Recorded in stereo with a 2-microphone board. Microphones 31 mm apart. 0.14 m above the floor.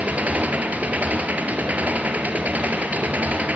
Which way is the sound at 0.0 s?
60° right (ahead or behind).